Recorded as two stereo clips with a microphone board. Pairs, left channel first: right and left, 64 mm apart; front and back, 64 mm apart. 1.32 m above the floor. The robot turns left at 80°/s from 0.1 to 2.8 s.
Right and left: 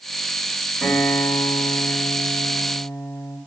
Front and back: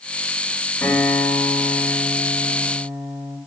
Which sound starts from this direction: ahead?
A guitar, at 0.8 s.